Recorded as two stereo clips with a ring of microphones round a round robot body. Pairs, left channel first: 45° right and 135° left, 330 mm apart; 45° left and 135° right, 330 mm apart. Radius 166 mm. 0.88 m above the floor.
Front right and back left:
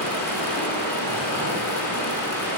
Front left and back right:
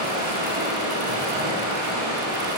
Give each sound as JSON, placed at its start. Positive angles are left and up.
{"t": 0.0, "sound": "running water", "azimuth_deg": -130, "distance_m": 5.5}